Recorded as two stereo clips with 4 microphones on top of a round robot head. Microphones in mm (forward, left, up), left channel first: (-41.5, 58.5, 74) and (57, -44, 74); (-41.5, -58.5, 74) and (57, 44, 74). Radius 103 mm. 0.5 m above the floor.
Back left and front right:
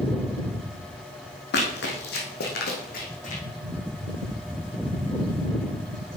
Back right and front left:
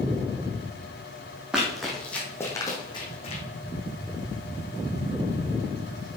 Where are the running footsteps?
130° left, 2 m; by 3.4 s 175° left, 2.0 m.